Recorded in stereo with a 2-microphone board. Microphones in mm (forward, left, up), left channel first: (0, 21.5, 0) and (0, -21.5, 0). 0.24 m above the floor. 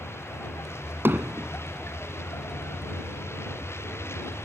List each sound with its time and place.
0.0 s a vehicle: 85° left
1.1 s hammering: 65° right (ahead or behind)